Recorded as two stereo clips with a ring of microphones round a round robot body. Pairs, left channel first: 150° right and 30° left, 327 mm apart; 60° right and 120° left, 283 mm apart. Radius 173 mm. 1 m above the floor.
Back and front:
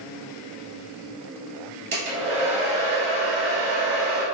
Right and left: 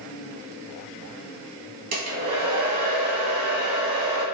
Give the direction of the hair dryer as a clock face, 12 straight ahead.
9 o'clock.